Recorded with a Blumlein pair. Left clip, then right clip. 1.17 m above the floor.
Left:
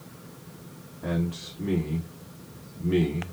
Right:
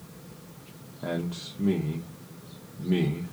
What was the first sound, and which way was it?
A man speaking, 15° right.